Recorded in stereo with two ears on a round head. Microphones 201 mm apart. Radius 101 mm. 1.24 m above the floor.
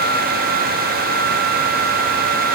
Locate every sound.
Only background noise.